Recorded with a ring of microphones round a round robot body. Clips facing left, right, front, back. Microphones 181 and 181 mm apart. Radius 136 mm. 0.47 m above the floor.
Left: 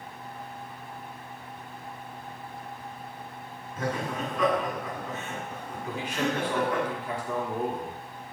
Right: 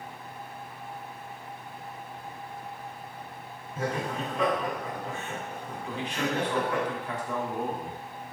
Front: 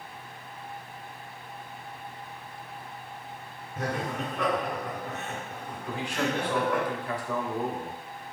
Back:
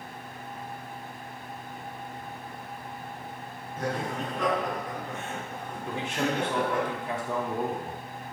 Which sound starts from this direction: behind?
A man speaking, at 5.9 s.